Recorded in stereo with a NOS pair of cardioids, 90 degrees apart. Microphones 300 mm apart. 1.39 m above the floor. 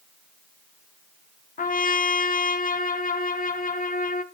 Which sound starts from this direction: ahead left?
A trumpet, at 1.6 s.